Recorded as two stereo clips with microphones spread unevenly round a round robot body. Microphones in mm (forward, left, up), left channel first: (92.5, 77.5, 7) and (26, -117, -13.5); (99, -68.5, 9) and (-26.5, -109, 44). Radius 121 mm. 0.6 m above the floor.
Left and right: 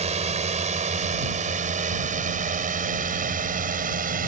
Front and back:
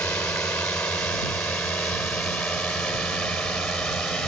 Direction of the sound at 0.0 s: 55° right.